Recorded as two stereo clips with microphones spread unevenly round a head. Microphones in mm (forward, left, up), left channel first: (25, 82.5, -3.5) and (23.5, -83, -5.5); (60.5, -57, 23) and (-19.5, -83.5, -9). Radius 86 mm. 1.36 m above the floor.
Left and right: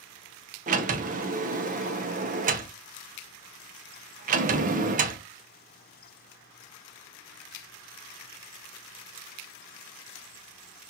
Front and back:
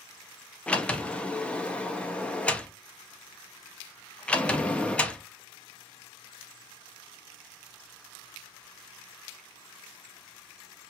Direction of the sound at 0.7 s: 50° right.